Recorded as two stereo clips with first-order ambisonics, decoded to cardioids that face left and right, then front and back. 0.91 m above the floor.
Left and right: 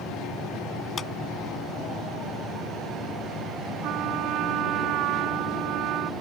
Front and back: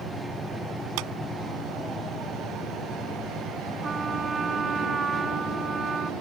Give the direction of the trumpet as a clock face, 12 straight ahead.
4 o'clock.